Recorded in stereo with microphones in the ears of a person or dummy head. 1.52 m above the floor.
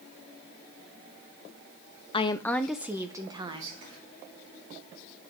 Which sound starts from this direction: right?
Whispering, at 3.5 s.